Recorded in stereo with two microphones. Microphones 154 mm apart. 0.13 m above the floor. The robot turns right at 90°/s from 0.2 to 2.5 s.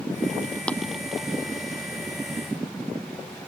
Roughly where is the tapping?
Centre.